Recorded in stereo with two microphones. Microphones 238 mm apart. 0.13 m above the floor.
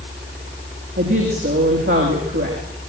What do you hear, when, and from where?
1.0 s a woman speaking: 60° right (ahead or behind), 6.5 m